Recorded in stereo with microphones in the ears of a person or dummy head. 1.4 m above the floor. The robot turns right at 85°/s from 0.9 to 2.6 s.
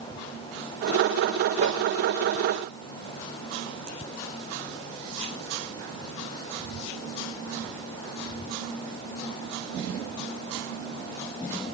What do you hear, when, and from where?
1.6 s a whoosh: 30° right (ahead or behind), 1.5 m; by 1.8 s 45° right (ahead or behind), 1.5 m